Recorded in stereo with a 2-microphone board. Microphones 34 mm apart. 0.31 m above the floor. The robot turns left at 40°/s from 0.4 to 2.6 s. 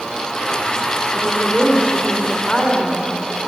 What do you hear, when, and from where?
1.1 s a woman speaking: 115° right, 3 m; by 3.1 s 175° right, 3 m